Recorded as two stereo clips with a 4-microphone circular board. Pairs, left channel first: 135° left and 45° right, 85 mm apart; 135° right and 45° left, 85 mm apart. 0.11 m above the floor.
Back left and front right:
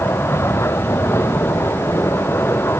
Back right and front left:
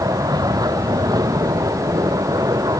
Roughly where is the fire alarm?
I don't hear a fire alarm.